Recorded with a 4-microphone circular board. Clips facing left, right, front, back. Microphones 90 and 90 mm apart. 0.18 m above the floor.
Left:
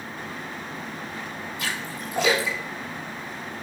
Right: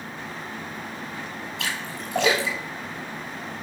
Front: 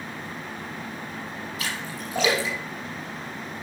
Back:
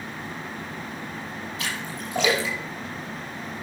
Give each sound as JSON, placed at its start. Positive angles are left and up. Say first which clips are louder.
{"t": 1.6, "sound": "a splash", "louder": "even, even", "azimuth_deg": -85, "distance_m": 5.5}